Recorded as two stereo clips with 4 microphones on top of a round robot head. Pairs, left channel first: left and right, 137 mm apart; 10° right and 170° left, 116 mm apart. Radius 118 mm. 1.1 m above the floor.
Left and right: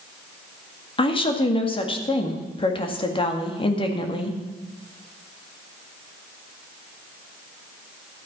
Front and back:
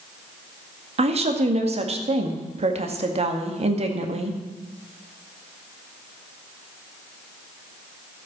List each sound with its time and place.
1.0 s a woman speaking: 140° left, 2.0 m